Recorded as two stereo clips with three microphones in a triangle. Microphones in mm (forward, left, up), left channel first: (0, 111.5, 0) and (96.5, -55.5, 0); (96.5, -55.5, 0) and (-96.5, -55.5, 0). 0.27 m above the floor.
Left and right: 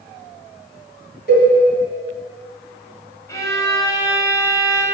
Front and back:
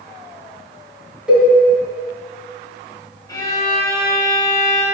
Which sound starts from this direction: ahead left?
A violin, at 3.3 s.